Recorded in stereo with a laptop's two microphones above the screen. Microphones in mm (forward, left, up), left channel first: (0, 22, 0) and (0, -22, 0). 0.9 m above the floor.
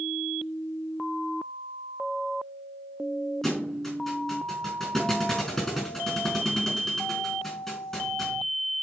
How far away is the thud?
About 4 m.